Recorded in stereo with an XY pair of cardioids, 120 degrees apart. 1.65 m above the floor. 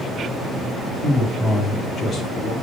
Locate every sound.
1.0 s a man speaking: 35° left, 3 m; by 2.5 s 60° left, 3 m